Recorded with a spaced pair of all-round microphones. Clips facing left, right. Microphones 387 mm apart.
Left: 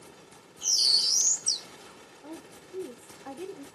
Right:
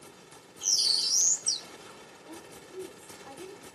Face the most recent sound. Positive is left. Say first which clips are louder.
# left 4 dB
turn(degrees=80)